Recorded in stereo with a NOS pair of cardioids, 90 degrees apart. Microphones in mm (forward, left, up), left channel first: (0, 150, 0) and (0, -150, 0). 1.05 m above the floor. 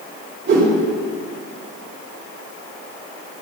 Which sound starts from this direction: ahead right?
A whoosh, at 0.5 s.